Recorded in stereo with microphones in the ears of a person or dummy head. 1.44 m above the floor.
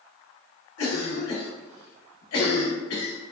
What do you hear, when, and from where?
0.8 s a cough: 75° left (ahead or behind), 0.8 m